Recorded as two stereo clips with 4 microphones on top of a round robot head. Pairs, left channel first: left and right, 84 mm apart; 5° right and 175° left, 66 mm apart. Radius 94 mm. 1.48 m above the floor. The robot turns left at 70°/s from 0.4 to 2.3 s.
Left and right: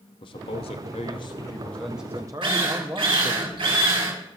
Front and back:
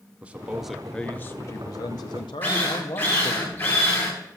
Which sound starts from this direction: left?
A man speaking, at 0.2 s.